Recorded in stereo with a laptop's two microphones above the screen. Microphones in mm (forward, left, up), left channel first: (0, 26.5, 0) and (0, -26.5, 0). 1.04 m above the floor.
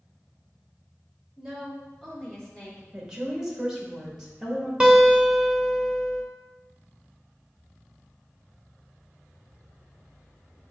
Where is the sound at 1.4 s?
5° right (ahead or behind), 2 m; by 2.8 s 10° left (ahead or behind), 2.5 m.